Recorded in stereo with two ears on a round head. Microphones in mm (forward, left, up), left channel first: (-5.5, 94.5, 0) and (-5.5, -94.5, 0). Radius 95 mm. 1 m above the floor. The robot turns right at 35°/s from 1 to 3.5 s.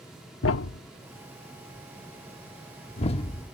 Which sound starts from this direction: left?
A thud, at 0.4 s.